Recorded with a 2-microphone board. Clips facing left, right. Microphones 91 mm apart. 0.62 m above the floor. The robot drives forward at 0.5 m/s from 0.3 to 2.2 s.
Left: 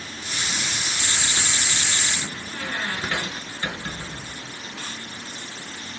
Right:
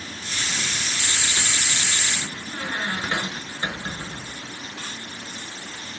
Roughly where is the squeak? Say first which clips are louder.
Right 2 dB; right.